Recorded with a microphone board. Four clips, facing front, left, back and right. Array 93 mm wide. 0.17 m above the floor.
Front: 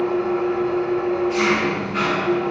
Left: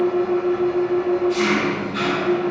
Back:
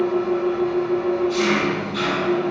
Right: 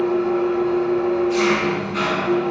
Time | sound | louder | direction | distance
0.0 | an engine running | even, even | 30° right | 1.4 m